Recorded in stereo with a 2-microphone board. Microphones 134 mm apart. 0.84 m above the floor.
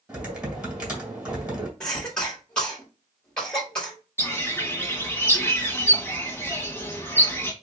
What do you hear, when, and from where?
0.1 s typing on a keyboard: 10° right (ahead or behind), 1.7 m
1.8 s a cough: 5° left (ahead or behind), 1.7 m
4.2 s a bird: 20° left (ahead or behind), 1.0 m